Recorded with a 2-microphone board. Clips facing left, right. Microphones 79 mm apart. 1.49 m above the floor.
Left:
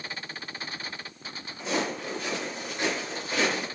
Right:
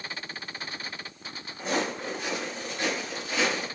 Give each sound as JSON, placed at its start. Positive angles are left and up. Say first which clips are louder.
{"t": 1.6, "sound": "footsteps", "louder": "right 1 dB", "side_deg": -45, "distance_m": 2.0}